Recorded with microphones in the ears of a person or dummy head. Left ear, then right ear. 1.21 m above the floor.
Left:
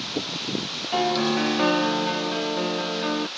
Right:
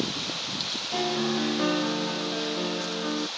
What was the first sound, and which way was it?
A piano, 40° left (ahead or behind).